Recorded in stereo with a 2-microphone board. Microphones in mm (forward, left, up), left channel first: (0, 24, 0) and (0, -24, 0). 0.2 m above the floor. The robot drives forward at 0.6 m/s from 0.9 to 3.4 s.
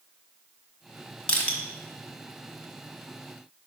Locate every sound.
1.3 s crushing: 20° left (ahead or behind), 1.4 m